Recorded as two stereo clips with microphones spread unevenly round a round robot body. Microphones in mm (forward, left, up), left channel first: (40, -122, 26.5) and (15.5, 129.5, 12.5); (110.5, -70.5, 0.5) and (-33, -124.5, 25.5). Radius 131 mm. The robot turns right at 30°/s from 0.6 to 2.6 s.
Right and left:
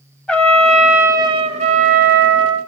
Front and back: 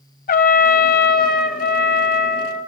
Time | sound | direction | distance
0.3 | a trumpet | straight ahead | 0.7 m